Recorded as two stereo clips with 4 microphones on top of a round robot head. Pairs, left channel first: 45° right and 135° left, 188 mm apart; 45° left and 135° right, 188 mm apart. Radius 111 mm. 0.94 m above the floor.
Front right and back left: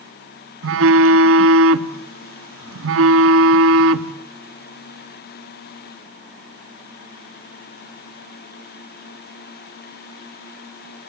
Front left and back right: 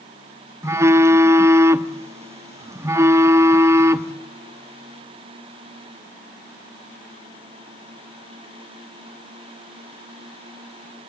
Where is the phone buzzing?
145° left, 0.8 m.